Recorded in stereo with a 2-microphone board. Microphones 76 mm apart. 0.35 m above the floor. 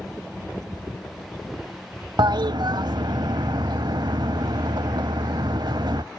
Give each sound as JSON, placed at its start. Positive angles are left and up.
{"t": 2.2, "sound": "a toilet flushing", "side_deg": -70, "distance_m": 0.8}